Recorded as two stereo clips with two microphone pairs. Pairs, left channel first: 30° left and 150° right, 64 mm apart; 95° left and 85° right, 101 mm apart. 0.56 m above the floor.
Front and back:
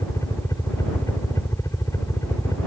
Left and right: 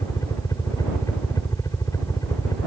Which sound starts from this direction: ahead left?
A helicopter, at 0.0 s.